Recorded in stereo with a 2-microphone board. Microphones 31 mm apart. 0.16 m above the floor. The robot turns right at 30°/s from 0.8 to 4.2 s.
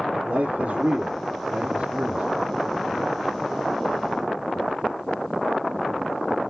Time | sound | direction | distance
0.2 | a man speaking | 75° right | 2 m